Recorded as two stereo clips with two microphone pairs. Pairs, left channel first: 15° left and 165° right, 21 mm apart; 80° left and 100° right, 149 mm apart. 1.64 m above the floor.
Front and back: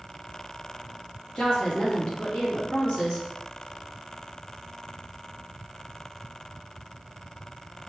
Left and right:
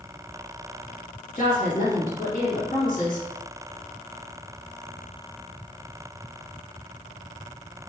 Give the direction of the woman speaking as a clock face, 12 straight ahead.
10 o'clock.